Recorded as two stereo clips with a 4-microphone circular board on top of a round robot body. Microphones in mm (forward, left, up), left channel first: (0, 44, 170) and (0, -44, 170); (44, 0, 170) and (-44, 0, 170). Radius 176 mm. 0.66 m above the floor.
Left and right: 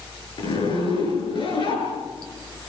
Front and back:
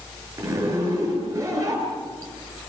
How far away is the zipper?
About 9.5 m.